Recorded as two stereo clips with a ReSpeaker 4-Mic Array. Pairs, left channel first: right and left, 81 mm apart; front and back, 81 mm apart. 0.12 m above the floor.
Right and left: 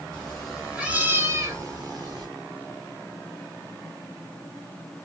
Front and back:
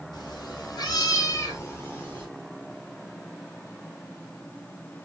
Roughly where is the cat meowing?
Ahead.